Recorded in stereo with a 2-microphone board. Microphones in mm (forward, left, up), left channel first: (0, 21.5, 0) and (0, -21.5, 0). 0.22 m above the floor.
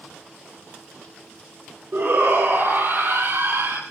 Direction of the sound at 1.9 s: 55° right (ahead or behind).